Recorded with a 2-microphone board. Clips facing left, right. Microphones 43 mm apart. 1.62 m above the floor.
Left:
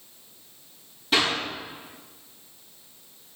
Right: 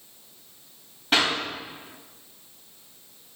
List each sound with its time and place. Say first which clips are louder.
1.1 s a clap: right 1 dB; 40° right (ahead or behind), 3.5 m